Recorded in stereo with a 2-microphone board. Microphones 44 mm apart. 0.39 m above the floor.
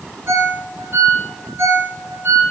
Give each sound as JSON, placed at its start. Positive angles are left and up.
{"t": 0.3, "sound": "a ringtone", "side_deg": -60, "distance_m": 4.0}